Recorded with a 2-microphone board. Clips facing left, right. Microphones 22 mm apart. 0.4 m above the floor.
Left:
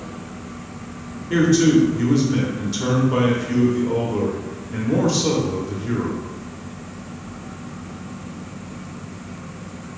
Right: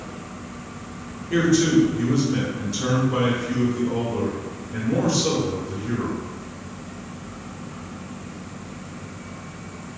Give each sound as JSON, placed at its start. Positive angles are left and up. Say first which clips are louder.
{"t": 1.3, "sound": "a man speaking", "louder": "left 3 dB", "side_deg": 25, "distance_m": 1.1}